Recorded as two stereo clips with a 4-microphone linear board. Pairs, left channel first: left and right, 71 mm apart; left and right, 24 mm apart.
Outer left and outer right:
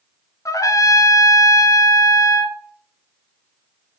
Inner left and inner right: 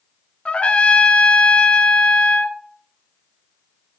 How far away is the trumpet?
About 0.7 m.